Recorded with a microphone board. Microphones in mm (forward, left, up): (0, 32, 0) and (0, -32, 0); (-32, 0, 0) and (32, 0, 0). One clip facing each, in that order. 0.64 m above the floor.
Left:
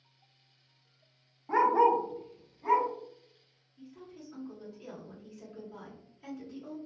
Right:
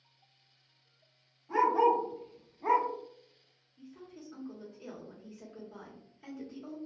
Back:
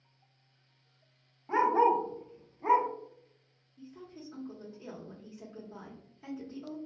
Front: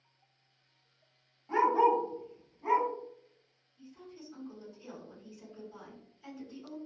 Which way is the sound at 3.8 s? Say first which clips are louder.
Left 1 dB, back 2 dB; 165° right.